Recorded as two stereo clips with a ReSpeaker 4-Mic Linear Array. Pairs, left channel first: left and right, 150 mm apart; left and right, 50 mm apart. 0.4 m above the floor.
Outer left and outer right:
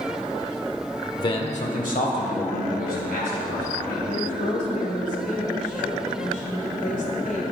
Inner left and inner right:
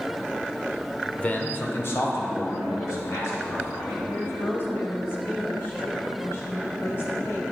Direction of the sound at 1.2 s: 25° left (ahead or behind).